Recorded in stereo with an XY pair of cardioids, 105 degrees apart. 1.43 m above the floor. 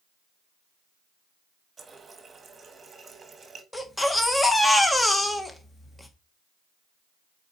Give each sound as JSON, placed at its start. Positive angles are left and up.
{"t": 1.8, "sound": "a running tap", "azimuth_deg": -35, "distance_m": 1.5}
{"t": 3.7, "sound": "a baby crying", "azimuth_deg": 10, "distance_m": 1.2}